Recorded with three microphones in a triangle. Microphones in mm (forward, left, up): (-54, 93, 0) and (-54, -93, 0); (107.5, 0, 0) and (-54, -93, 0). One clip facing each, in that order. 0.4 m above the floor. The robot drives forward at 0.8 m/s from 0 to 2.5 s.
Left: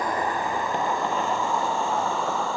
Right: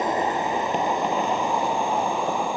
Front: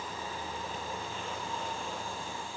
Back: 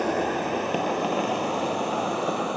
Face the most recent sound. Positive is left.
turn(degrees=-165)